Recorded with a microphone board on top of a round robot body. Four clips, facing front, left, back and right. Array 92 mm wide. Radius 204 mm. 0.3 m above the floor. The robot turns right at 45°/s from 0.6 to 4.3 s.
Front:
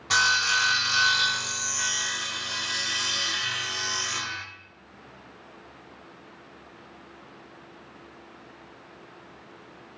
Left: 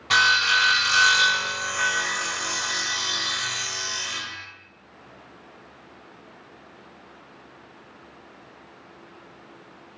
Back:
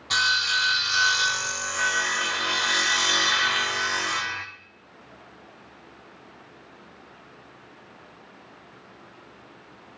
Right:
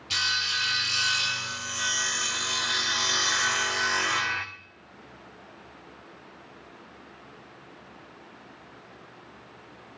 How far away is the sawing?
About 0.9 m.